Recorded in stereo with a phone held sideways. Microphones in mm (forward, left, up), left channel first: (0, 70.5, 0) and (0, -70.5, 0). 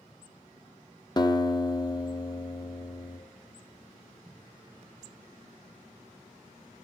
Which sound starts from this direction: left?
A guitar, at 1.2 s.